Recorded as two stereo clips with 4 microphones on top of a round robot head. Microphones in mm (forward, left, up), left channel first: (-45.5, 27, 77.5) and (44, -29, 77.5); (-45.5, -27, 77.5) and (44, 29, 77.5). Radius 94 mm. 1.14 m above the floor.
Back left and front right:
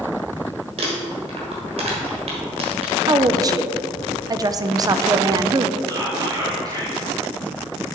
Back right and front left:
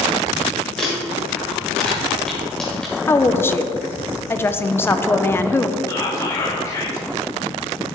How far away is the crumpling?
About 1.4 m.